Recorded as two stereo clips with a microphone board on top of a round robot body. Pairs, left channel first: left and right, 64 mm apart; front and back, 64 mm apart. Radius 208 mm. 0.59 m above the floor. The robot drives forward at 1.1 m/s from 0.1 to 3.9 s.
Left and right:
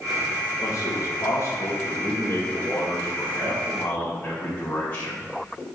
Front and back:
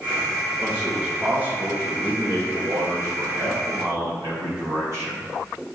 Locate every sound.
0.6 s a man speaking: 85° left, 1.8 m; by 5.2 s 155° left, 4 m